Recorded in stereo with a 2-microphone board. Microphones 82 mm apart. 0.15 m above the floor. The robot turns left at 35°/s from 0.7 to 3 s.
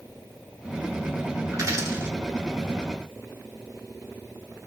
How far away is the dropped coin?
About 1.1 m.